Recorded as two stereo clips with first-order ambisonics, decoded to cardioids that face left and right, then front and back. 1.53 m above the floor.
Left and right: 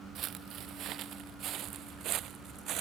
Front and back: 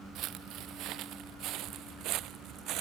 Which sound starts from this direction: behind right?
Footsteps, at 0.1 s.